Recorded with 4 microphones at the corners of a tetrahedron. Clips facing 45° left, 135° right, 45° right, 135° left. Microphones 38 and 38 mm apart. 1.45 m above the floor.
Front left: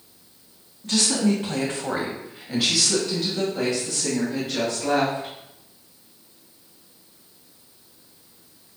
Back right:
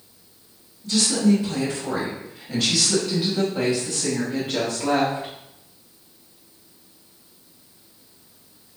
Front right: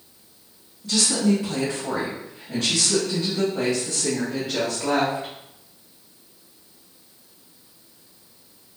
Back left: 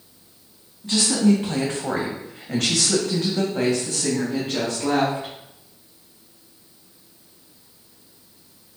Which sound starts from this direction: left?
A woman speaking, at 0.8 s.